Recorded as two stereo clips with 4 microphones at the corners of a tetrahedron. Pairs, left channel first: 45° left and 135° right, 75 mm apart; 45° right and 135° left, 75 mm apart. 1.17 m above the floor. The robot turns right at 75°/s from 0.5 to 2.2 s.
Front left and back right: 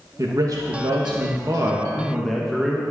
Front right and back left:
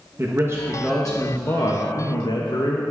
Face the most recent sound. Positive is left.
turn(degrees=-45)